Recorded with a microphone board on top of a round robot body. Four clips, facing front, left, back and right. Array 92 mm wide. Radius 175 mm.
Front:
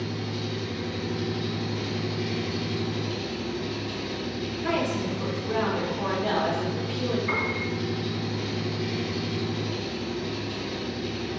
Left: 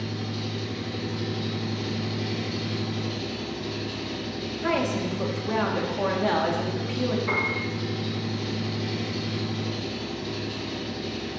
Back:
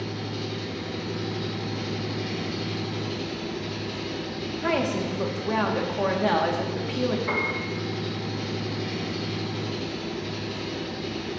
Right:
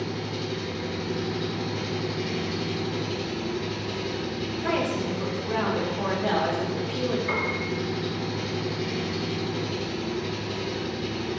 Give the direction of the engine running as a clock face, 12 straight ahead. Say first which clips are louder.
Right 2 dB, even; 4 o'clock.